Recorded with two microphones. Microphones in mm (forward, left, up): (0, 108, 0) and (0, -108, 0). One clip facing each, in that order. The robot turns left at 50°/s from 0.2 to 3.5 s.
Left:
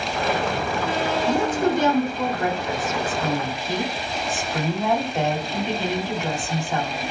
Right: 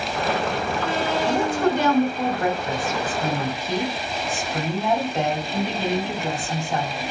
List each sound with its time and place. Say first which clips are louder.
1.3 s a woman speaking: even; 70° right, 1.5 m; by 7.0 s straight behind, 1.5 m